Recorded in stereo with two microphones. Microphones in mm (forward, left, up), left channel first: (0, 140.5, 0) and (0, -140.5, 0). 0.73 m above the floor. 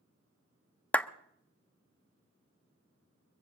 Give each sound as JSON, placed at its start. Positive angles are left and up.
{"t": 0.9, "sound": "a clap", "side_deg": 5, "distance_m": 0.5}